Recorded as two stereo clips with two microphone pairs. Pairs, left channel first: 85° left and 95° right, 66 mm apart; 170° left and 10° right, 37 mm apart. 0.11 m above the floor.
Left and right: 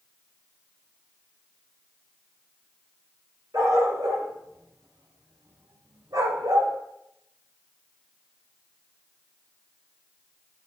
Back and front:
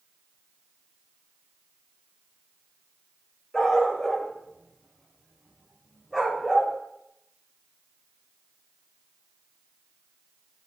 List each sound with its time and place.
3.5 s a dog barking: 105° right, 7 m; by 6.7 s 90° right, 5 m